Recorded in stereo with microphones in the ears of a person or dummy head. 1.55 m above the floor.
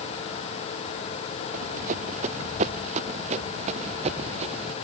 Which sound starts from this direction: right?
Running footsteps, at 1.5 s.